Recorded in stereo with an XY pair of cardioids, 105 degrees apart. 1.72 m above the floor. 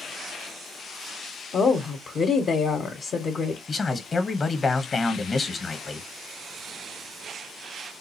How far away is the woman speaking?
About 0.9 m.